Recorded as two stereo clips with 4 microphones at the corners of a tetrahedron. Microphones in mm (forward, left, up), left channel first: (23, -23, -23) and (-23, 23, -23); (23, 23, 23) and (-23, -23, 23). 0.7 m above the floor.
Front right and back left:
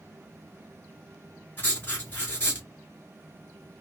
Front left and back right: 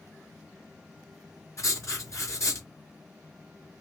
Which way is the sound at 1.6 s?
5° left.